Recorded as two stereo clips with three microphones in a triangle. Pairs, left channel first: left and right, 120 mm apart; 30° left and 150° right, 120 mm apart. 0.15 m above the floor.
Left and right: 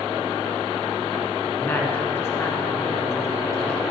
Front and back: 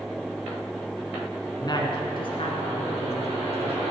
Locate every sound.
1.6 s a woman speaking: 30° left, 1.4 m